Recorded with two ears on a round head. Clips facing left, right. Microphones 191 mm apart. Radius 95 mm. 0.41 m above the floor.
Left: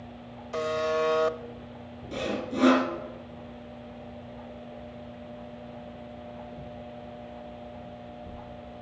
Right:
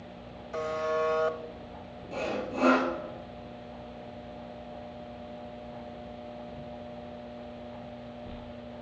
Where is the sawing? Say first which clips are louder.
Left 2 dB; 30° left (ahead or behind), 4 m.